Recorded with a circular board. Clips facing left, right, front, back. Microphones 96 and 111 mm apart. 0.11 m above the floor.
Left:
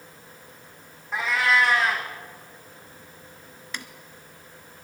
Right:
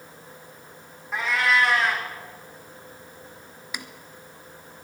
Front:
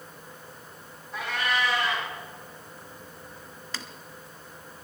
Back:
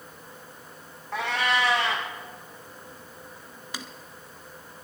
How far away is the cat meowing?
About 2.5 m.